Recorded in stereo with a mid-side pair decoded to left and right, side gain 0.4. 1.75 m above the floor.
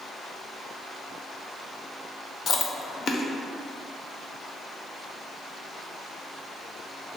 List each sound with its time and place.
2.5 s chewing: 60° left, 0.5 m